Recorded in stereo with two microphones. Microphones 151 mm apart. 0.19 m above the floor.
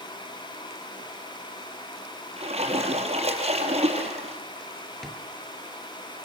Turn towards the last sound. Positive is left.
turn(degrees=0)  # may be behind; listen again after turning